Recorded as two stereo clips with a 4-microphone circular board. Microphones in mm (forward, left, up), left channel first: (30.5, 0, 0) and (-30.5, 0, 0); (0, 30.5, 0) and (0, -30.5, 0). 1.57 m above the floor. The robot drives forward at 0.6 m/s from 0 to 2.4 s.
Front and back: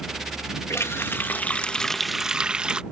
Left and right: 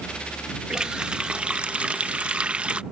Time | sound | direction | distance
0.7 | a running tap | 20° right | ?